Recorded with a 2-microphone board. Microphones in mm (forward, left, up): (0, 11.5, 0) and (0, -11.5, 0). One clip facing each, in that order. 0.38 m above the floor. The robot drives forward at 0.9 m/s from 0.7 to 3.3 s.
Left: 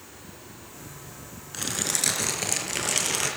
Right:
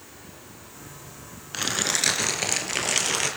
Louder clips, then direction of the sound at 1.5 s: Right 4 dB; 35° right (ahead or behind).